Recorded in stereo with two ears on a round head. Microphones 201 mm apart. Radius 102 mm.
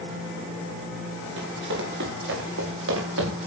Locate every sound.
1.4 s running footsteps: 55° right (ahead or behind), 8.5 m; by 3.5 s 65° right (ahead or behind), 8.5 m